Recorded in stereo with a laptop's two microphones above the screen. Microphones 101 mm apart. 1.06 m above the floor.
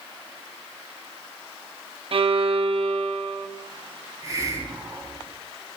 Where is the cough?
I don't hear a cough.